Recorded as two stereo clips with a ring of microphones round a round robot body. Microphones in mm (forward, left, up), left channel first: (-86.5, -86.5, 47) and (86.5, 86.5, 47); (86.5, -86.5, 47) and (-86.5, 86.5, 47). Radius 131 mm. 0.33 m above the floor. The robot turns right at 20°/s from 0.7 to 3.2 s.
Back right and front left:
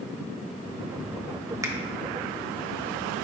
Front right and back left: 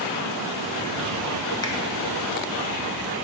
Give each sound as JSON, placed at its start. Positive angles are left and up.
{"t": 1.6, "sound": "a finger snap", "azimuth_deg": -5, "distance_m": 0.7}